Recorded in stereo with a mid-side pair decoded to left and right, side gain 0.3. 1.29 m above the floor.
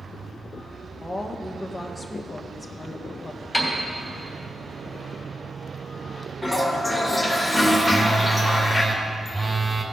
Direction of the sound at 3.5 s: 10° left.